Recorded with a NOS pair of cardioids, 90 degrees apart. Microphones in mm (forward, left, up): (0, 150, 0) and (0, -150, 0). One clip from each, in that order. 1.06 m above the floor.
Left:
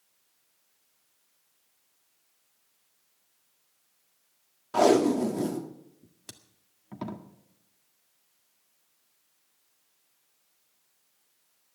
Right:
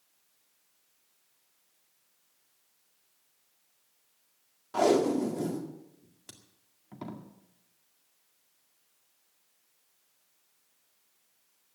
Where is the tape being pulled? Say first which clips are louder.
Left 4 dB; 25° left, 1.8 m.